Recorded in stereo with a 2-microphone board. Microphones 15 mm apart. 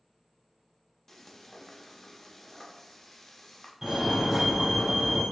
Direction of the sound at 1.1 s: 25° left (ahead or behind).